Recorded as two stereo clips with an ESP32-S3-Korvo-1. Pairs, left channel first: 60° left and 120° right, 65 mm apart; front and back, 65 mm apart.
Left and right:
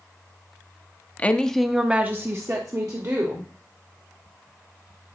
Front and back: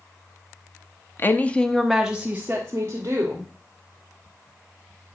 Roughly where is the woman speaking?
Ahead.